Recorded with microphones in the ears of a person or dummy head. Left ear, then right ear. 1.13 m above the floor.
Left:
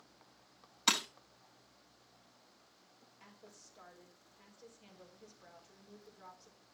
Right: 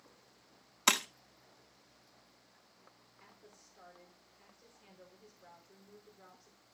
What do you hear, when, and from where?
0.9 s breaking glass: 30° right (ahead or behind), 0.9 m
3.2 s a woman speaking: 5° left (ahead or behind), 4.5 m